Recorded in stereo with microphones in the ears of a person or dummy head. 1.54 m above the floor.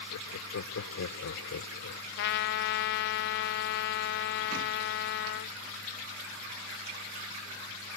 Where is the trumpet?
55° left (ahead or behind).